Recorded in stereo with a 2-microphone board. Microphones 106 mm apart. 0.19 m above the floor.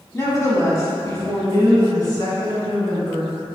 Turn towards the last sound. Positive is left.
turn(degrees=35)  # may be behind; listen again after turning